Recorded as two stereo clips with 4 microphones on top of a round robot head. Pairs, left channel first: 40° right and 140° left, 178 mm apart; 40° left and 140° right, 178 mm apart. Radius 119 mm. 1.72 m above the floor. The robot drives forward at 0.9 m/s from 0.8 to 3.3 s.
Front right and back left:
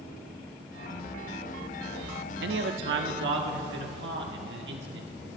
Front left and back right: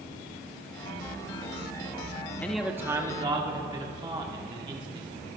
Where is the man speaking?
120° left, 0.6 m; by 5.1 s 155° left, 1.2 m.